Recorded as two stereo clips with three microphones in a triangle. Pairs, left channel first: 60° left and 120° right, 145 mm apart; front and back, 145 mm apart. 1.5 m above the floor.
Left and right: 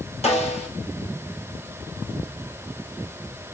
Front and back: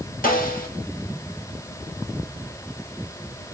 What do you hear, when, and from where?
0.2 s a snare drum: 15° left, 1.7 m